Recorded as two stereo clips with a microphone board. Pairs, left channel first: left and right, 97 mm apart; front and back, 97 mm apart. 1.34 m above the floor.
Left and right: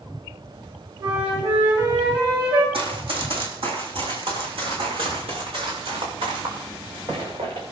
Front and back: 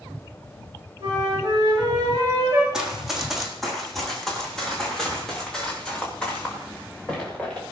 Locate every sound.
1.0 s a flute: 125° right, 9 m
2.7 s running footsteps: 100° right, 3.5 m; by 7.6 s 80° right, 9 m